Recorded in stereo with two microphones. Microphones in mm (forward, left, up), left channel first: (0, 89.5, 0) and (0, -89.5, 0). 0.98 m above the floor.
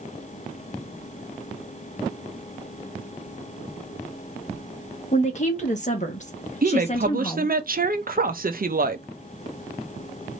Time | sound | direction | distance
5.1 | a woman speaking | 40° left (ahead or behind) | 1.5 m
6.6 | a woman speaking | 55° right (ahead or behind) | 0.7 m